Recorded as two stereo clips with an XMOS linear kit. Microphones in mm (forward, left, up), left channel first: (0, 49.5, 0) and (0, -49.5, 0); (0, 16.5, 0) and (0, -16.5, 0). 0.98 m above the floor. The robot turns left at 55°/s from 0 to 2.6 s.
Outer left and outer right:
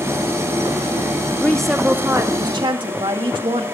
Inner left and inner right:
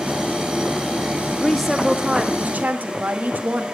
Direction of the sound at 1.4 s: 15° left.